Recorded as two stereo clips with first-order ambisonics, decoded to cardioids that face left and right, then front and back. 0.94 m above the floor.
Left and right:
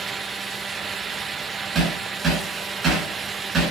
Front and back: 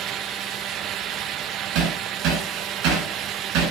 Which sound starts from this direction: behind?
Hammering, at 1.8 s.